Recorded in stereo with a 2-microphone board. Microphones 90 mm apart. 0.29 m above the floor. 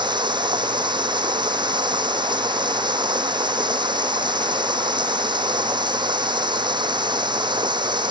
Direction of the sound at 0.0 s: 55° right (ahead or behind).